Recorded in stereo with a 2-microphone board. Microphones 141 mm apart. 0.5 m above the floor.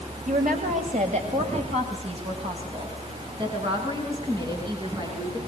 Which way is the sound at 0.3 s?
70° right (ahead or behind).